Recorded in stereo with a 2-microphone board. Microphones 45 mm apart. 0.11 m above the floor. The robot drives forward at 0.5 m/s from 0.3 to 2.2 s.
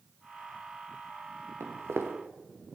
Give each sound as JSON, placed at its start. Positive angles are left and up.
{"t": 1.6, "sound": "footsteps", "side_deg": -85, "distance_m": 2.0}